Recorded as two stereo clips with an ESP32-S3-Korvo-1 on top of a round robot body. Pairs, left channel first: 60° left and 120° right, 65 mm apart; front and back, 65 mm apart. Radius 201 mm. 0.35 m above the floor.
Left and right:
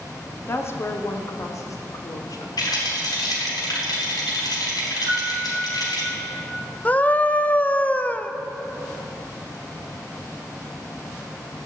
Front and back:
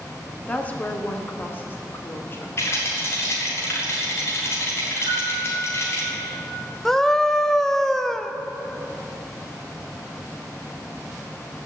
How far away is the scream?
About 0.8 m.